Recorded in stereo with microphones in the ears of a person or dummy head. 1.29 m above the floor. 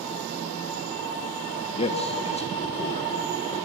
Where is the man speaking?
30° left (ahead or behind), 1.4 m.